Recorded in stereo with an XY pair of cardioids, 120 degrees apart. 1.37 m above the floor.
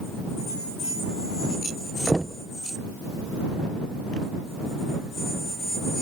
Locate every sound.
2.1 s knocking: 10° right